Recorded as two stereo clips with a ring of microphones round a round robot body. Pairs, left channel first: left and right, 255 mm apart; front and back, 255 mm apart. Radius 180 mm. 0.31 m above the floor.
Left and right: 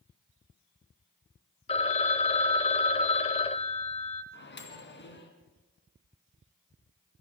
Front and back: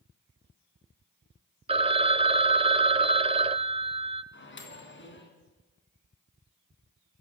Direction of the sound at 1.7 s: 135° left.